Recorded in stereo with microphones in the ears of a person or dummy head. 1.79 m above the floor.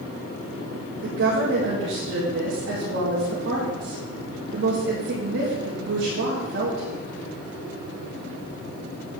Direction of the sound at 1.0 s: 65° right (ahead or behind).